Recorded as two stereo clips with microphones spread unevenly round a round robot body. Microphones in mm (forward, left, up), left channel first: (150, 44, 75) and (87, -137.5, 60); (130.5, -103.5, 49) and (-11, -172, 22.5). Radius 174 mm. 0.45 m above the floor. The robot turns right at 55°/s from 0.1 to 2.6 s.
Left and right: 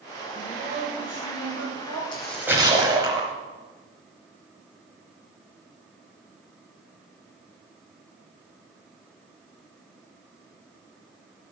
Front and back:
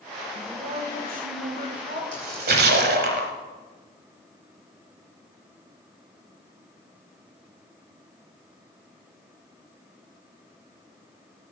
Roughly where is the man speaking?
Behind.